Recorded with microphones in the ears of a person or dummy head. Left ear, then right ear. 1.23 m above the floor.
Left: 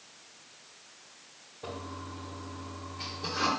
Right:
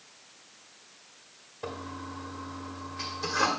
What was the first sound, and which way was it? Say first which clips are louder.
A toilet flushing: right 2 dB; 55° right (ahead or behind).